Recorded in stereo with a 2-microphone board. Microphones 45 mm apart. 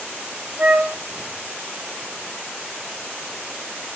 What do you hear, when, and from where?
0.6 s a flute: 45° right (ahead or behind), 1.8 m